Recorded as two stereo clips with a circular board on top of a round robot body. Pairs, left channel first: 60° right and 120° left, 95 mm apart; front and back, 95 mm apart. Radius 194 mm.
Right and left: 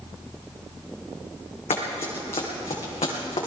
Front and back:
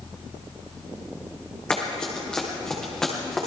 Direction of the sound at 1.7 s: 80° right.